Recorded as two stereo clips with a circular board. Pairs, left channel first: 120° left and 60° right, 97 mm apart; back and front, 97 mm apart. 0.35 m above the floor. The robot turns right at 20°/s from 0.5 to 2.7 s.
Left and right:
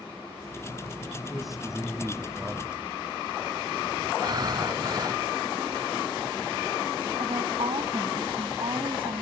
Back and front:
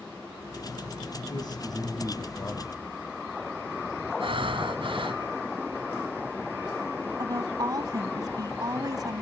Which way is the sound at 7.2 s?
45° right.